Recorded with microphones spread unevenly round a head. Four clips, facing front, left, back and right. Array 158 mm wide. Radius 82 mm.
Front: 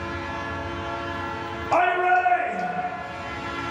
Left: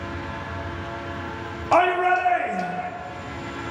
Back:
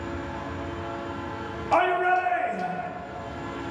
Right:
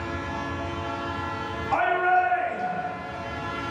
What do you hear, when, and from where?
1.7 s a shout: 80° left, 1.1 m